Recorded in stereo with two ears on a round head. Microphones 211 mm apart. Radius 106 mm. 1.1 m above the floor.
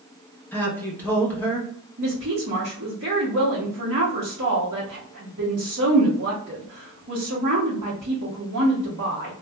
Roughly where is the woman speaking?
Right.